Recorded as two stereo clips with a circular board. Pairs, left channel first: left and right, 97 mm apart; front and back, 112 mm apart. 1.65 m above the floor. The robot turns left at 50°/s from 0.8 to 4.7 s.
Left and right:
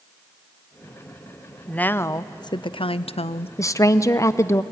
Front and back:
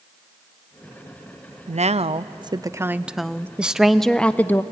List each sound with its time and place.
1.7 s a woman speaking: 170° left, 0.6 m; by 3.5 s 80° left, 0.6 m
3.6 s a woman speaking: 105° left, 0.6 m; by 4.6 s 55° left, 0.6 m